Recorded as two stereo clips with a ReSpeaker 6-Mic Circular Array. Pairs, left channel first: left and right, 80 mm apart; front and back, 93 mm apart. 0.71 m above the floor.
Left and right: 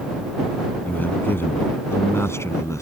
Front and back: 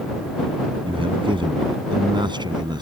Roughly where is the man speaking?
Behind left.